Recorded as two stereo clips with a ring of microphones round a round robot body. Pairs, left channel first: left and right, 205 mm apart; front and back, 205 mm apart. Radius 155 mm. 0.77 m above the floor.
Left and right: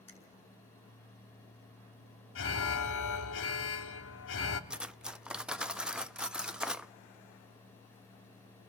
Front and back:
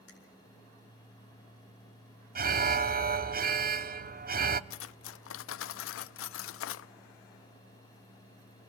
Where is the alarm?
130° left, 1.0 m.